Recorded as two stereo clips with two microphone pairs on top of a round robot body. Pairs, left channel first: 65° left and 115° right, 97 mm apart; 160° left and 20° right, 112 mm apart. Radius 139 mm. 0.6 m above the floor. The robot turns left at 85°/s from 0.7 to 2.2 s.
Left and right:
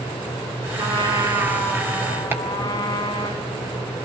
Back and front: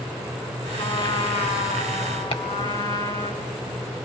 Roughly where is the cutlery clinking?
I don't hear cutlery clinking.